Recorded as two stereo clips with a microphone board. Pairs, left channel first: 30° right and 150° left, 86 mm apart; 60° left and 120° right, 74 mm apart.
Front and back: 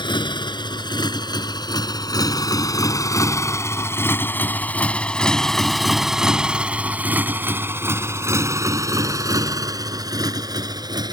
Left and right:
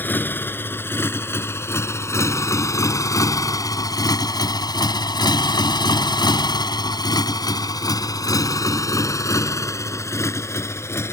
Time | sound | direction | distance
0.0 | a motorcycle | 5° right | ?